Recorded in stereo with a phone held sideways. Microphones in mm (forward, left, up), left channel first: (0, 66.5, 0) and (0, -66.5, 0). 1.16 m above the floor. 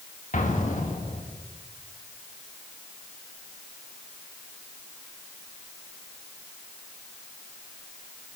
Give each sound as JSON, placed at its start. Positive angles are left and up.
{"t": 0.3, "sound": "an explosion", "side_deg": 70, "distance_m": 2.0}